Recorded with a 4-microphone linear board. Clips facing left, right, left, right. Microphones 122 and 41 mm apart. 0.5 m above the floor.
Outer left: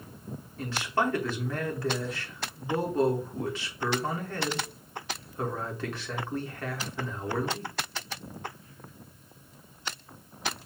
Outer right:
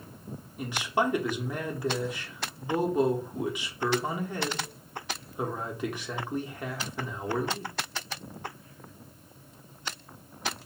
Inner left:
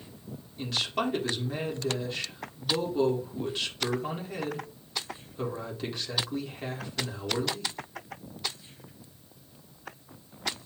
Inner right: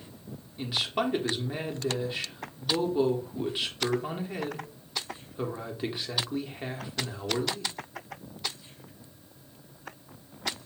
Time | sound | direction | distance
0.6 | a man speaking | 15° right (ahead or behind) | 0.8 m